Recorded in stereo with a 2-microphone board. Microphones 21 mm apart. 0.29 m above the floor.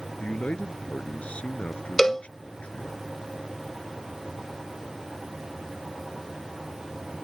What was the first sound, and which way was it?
A man speaking, 75° left (ahead or behind).